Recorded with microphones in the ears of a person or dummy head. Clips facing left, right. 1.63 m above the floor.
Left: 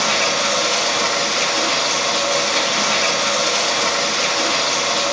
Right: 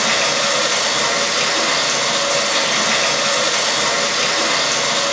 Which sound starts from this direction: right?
Running water, at 0.0 s.